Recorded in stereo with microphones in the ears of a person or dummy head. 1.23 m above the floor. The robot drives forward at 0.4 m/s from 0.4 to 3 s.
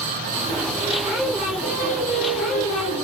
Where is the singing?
20° right (ahead or behind), 4 m; by 3.0 s 15° right (ahead or behind), 4.5 m.